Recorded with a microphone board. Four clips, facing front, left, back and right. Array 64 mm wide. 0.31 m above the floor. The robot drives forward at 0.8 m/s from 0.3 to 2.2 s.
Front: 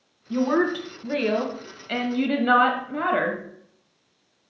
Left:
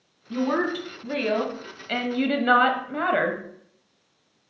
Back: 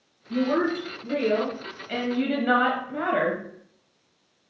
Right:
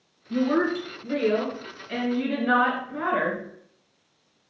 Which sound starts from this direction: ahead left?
A woman speaking, at 0.3 s.